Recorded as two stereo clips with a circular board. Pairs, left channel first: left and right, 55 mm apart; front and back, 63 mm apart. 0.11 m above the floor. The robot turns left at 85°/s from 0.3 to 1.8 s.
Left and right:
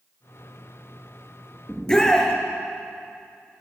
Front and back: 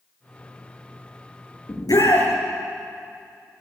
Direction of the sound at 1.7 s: 25° left.